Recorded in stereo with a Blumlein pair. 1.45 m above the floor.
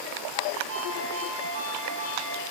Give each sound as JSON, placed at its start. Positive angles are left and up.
{"t": 0.7, "sound": "a ringtone", "azimuth_deg": -70, "distance_m": 2.5}